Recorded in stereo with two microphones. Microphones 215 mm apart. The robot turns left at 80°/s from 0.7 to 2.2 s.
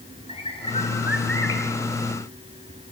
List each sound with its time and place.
0.3 s a bird: 155° left, 4 m; by 1.6 s 80° left, 4 m